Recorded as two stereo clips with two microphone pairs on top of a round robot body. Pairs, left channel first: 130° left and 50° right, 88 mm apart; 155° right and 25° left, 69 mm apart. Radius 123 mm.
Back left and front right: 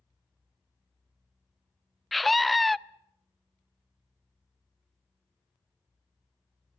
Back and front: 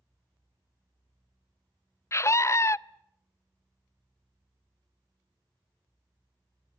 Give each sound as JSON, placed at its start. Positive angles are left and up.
{"t": 2.1, "sound": "a scream", "azimuth_deg": -140, "distance_m": 0.5}